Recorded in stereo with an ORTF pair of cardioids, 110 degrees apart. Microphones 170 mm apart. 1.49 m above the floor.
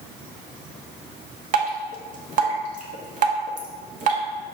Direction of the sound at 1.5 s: 50° right.